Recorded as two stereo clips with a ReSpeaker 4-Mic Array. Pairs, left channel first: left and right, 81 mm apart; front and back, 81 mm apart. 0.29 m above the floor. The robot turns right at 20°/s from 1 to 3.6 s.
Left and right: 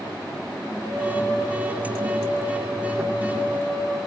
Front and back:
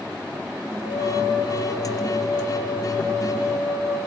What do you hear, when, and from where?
0.8 s a flute: 10° left, 9.5 m; by 4.1 s 65° left, 9.5 m